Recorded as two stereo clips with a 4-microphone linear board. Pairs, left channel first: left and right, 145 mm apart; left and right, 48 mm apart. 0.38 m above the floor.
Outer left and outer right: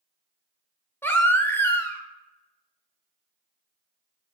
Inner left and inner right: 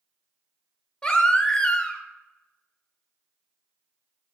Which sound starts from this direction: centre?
A baby crying, at 1.0 s.